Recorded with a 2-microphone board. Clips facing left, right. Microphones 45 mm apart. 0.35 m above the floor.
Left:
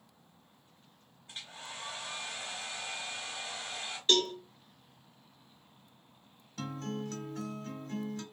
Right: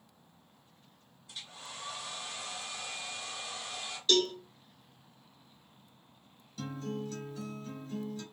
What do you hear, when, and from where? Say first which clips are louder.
1.3 s a hair dryer: left 1 dB; 30° left (ahead or behind), 1.3 m
4.1 s a cowbell: even; 35° left (ahead or behind), 0.8 m
6.6 s a guitar: even; 50° left (ahead or behind), 1.1 m